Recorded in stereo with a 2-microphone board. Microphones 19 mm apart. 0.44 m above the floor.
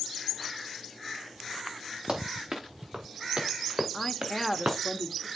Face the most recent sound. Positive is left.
turn(degrees=15)  # may be behind; listen again after turning